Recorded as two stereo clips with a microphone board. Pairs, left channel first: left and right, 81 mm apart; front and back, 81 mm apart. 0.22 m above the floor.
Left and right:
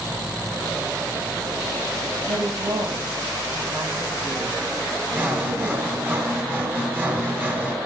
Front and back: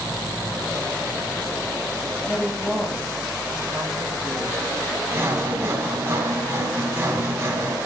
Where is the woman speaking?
95° right, 6.5 m.